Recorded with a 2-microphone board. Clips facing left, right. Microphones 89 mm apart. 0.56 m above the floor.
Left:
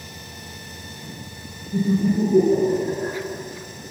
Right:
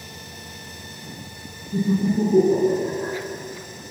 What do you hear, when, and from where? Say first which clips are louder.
1.7 s laughter: left 1 dB; 75° right (ahead or behind), 4 m